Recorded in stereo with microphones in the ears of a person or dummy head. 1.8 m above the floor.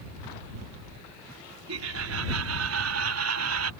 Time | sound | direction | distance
1.7 | laughter | 80° right | ?